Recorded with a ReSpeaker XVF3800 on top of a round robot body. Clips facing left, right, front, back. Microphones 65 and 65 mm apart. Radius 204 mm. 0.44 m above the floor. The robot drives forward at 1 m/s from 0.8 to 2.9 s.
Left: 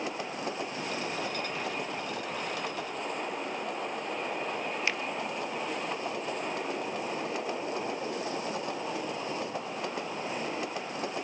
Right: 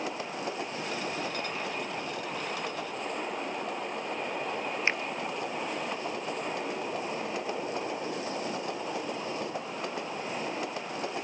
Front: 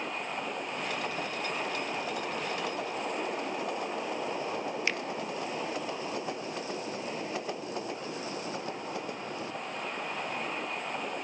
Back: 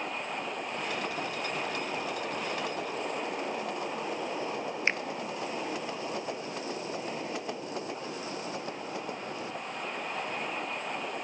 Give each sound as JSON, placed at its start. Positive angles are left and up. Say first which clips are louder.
{"t": 4.9, "sound": "a finger snap", "louder": "right 4 dB, back 4 dB", "azimuth_deg": -135, "distance_m": 1.0}